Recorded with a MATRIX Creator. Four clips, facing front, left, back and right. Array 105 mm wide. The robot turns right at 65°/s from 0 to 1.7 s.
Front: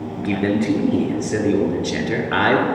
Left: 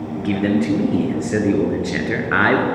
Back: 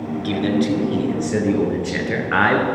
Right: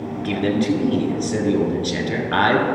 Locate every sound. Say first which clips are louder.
0.2 s a man speaking: left 2 dB, even; 10° left, 1.6 m; by 2.6 s 110° left, 1.6 m